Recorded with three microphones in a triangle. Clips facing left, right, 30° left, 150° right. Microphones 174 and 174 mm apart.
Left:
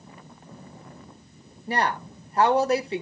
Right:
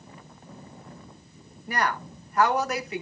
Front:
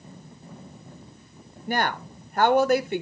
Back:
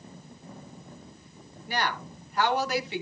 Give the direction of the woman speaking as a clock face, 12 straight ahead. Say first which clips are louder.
Left 2 dB, front 4 dB; 11 o'clock.